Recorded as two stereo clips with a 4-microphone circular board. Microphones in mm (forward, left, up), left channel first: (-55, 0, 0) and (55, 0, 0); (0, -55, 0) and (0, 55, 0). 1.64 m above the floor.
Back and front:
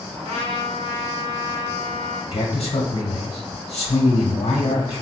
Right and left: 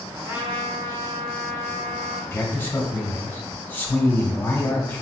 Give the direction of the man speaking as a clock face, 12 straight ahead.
5 o'clock.